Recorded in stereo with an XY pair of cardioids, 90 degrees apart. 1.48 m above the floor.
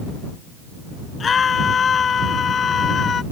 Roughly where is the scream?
Ahead left.